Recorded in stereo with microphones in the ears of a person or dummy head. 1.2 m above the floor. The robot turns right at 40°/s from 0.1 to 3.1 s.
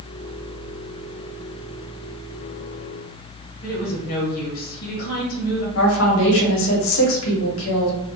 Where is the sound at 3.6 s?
55° left (ahead or behind), 0.8 m.